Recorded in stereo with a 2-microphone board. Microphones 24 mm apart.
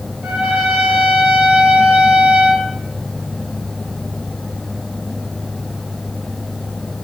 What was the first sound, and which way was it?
A trumpet, 65° right (ahead or behind).